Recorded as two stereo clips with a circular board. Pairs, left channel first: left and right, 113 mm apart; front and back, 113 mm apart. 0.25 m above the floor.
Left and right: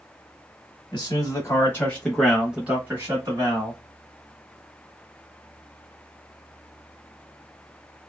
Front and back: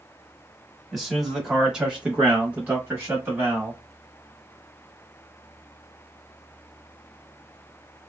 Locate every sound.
0.9 s a man speaking: 90° left, 1.2 m; by 3.8 s 115° right, 1.3 m